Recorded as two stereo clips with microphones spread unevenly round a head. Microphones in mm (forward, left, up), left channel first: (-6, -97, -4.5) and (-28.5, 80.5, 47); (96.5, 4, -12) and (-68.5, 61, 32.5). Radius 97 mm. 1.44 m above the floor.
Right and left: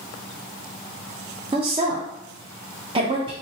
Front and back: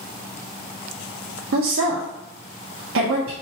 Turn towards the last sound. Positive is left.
turn(degrees=165)